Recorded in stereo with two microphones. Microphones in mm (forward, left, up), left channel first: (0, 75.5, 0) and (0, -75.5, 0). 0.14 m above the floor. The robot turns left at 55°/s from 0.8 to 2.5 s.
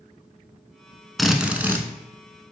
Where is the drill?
Centre (ahead or behind), 0.5 m; by 1.9 s 15° right (ahead or behind), 0.5 m.